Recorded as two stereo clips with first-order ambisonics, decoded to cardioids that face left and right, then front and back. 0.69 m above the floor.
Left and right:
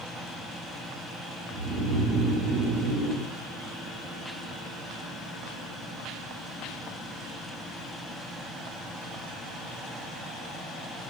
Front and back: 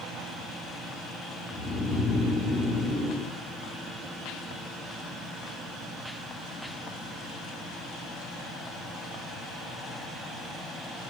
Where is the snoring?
80° right, 2.5 m.